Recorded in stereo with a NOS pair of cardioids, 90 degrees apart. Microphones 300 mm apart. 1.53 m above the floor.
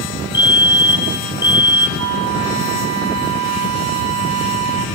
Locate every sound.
0.3 s a fire alarm: 15° left, 2 m
2.0 s a flute: 60° right, 0.7 m